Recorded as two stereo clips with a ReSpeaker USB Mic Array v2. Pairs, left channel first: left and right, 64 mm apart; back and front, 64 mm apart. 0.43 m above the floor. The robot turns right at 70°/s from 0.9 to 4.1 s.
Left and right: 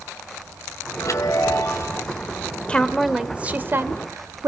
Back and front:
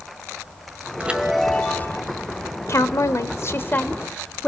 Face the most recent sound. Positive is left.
turn(degrees=-105)